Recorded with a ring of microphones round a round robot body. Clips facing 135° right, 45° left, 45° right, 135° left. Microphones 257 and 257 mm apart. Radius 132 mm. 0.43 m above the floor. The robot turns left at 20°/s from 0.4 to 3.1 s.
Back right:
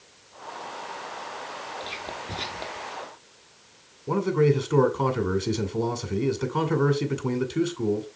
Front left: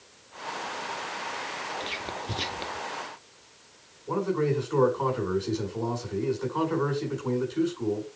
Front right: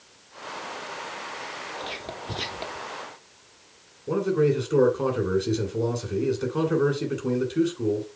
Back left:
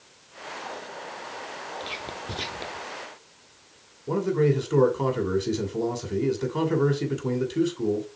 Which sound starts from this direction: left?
Whispering, at 1.8 s.